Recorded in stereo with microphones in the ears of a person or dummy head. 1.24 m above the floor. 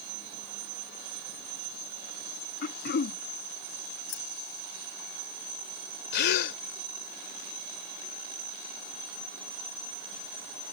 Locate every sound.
2.6 s throat clearing: 45° left (ahead or behind)
4.1 s keys jangling: 75° left (ahead or behind)
6.1 s a gasp: 65° left (ahead or behind)